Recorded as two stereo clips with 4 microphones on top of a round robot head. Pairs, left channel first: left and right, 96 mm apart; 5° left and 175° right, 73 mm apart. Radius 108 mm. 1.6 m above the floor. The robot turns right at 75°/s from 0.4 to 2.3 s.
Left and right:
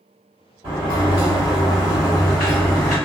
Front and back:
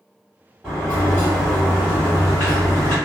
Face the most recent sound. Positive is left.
turn(degrees=20)